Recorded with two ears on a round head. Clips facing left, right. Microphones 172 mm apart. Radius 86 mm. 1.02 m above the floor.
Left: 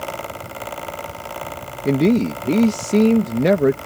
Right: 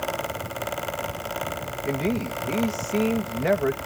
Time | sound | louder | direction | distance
1.9 | a man speaking | left 10 dB | 55° left (ahead or behind) | ?